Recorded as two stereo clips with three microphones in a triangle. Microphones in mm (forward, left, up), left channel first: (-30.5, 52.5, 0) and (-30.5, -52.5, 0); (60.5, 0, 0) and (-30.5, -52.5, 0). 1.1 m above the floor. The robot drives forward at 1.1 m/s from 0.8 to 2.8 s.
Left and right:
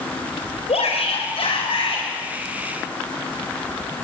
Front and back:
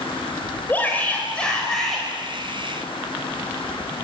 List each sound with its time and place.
0.7 s a shout: 105° left, 4.5 m; by 2.0 s 120° left, 5 m